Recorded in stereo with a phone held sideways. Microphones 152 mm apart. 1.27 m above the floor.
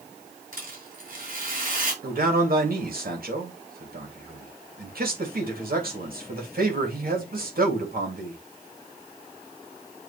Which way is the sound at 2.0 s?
70° right (ahead or behind).